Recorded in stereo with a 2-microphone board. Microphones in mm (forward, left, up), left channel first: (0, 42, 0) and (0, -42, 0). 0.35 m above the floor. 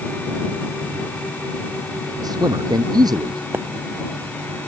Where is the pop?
30° right (ahead or behind).